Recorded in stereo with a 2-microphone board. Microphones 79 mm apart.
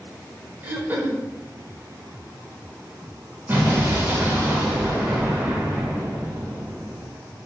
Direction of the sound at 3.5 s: 25° right (ahead or behind).